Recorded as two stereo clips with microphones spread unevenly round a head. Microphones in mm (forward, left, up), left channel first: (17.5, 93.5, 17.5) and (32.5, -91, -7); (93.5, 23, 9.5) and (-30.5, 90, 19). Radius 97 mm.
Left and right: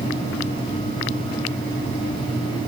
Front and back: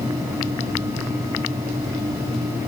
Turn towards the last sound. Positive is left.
No sound to turn to.